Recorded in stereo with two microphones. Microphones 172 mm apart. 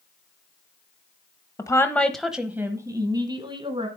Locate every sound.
1.6 s a woman speaking: 20° left (ahead or behind), 1.0 m; by 3.9 s 30° right (ahead or behind), 1.8 m